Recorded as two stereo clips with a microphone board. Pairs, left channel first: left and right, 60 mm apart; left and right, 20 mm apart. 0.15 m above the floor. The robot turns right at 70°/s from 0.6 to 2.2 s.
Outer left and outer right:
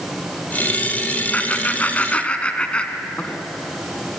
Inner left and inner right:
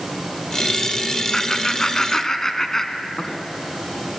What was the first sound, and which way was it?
Laughter, 25° left (ahead or behind).